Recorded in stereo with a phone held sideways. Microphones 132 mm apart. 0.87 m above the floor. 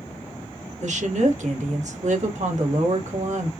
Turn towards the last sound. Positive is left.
turn(degrees=-65)  # may be behind; listen again after turning